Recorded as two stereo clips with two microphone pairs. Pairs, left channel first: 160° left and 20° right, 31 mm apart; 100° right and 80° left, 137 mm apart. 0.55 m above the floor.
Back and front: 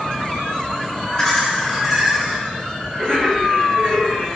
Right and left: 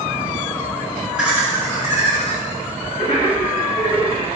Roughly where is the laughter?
Behind left.